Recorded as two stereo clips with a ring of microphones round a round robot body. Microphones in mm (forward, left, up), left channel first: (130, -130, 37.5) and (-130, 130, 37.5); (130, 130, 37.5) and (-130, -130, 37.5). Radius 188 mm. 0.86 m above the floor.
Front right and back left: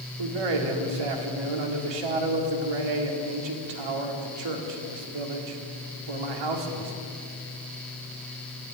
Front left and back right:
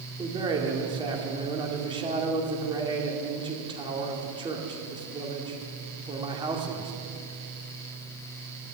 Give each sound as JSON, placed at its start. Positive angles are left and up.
{"t": 0.2, "sound": "a man speaking", "azimuth_deg": 145, "distance_m": 2.0}